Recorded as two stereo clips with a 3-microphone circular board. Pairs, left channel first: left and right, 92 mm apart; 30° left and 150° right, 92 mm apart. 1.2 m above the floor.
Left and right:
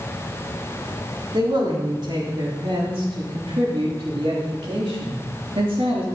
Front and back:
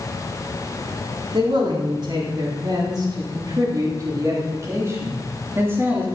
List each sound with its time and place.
1.3 s a man speaking: 125° right, 3.5 m; by 6.0 s 85° right, 3 m